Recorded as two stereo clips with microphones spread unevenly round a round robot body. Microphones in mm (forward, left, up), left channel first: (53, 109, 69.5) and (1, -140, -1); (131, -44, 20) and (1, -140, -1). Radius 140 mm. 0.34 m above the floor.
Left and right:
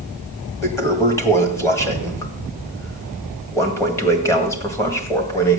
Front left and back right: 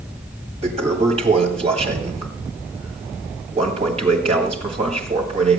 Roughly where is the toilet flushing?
Behind.